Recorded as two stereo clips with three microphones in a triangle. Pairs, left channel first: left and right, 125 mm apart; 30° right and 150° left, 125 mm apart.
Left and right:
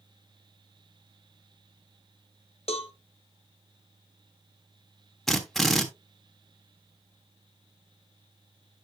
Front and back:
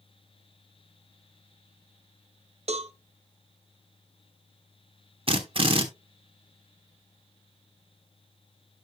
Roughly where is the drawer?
No drawer in this recording.